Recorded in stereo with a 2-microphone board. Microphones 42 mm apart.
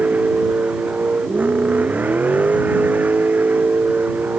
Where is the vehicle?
40° right (ahead or behind); by 4.4 s 45° right (ahead or behind).